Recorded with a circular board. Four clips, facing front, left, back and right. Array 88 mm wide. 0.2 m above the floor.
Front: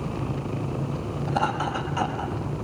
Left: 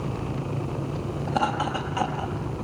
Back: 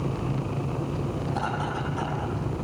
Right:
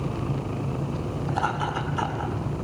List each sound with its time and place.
1.3 s laughter: 65° left, 7.5 m